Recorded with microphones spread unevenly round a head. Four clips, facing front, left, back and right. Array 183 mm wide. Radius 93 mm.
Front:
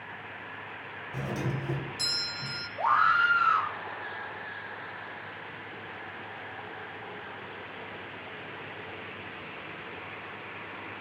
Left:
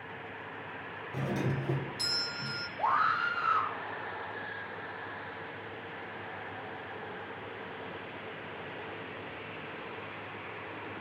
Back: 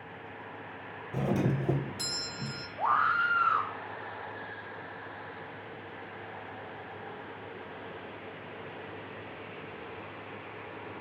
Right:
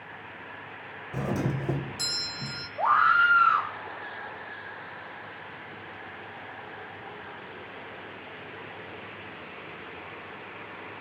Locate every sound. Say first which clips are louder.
1.1 s a doorbell: right 4 dB, back 5 dB; 145° right, 0.9 m
2.8 s a scream: right 7 dB, front 3 dB; 65° right, 2 m